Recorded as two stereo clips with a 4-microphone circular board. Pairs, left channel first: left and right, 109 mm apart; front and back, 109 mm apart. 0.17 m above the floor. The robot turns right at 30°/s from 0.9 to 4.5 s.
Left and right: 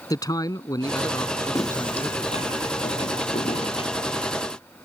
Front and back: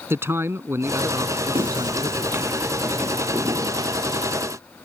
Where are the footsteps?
150° left; by 4.4 s 140° left.